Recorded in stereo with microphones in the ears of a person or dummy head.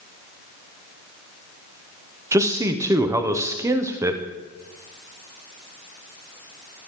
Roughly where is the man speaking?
Centre.